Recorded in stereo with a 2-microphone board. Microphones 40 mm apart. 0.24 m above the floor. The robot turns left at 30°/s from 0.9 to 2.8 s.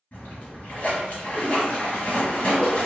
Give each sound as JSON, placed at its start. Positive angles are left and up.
{"t": 0.1, "sound": "a splash", "azimuth_deg": 100, "distance_m": 1.6}